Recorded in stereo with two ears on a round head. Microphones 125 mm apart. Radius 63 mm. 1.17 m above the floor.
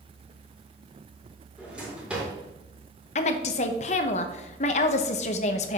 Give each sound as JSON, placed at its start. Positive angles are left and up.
{"t": 1.6, "sound": "a drawer", "side_deg": -10, "distance_m": 2.0}
{"t": 3.1, "sound": "a woman speaking", "side_deg": 50, "distance_m": 0.7}